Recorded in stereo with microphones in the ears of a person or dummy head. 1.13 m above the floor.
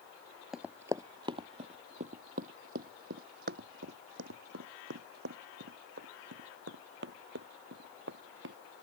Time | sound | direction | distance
0.5 | running footsteps | 5° right (ahead or behind) | ?